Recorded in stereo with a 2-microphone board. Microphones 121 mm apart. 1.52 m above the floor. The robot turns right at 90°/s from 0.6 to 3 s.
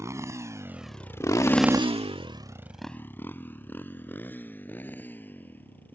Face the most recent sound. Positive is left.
turn(degrees=15)  # may be behind; listen again after turning